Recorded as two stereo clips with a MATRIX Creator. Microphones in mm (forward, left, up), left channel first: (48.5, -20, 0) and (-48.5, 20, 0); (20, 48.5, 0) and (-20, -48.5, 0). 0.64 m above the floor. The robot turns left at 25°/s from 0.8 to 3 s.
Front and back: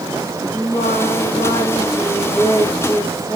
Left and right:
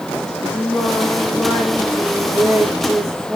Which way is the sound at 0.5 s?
10° right.